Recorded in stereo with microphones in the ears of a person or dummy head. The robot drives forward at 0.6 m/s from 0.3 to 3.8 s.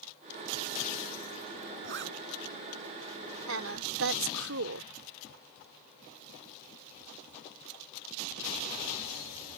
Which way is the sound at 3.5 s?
75° right (ahead or behind).